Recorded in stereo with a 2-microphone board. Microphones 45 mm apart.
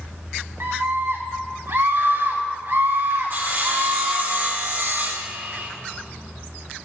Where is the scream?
70° right (ahead or behind), 3.5 m.